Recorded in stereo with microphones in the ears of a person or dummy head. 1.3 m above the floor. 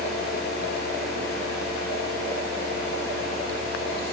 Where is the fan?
55° left (ahead or behind), 2.5 m.